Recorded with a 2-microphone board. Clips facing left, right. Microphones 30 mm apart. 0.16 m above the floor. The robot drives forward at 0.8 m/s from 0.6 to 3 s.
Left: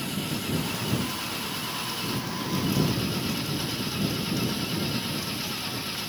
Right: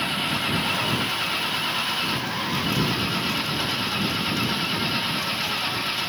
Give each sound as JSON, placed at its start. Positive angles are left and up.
{"t": 0.0, "sound": "an engine running", "side_deg": -40}